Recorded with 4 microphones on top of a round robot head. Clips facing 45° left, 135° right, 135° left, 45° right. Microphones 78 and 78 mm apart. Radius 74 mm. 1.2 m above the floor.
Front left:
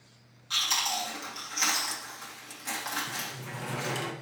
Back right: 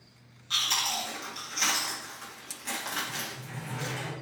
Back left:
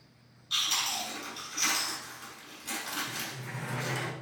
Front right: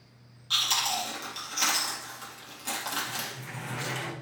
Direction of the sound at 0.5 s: 45° right.